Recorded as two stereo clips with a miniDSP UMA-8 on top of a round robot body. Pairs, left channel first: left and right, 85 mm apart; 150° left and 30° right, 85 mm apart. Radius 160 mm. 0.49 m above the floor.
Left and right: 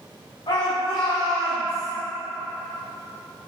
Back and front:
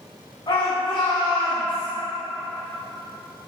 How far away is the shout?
About 2.5 m.